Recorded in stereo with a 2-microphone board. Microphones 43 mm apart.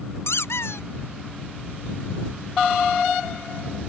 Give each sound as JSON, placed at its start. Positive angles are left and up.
{"t": 0.3, "sound": "a squeak", "side_deg": 85}